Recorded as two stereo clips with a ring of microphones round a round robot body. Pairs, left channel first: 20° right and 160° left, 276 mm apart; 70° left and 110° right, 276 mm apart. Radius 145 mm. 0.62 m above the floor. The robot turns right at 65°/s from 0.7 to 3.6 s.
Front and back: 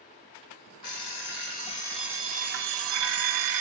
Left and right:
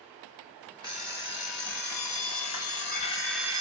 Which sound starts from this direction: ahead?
An alarm clock, at 0.8 s.